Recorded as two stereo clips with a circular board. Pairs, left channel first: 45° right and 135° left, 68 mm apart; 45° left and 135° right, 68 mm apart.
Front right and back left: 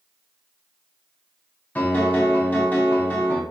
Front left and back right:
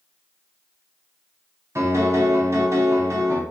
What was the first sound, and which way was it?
A piano, 105° right.